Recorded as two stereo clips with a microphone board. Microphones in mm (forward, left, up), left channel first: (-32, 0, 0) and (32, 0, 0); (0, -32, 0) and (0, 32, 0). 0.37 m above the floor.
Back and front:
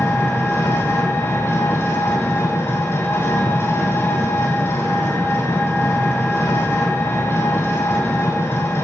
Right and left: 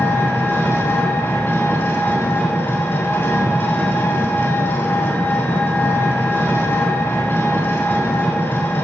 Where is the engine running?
130° right, 2 m.